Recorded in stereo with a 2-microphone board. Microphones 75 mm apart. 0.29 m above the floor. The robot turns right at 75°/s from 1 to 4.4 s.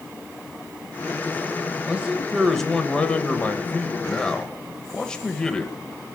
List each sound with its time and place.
1.9 s a man speaking: 15° right (ahead or behind), 0.9 m; by 5.8 s 10° left (ahead or behind), 0.9 m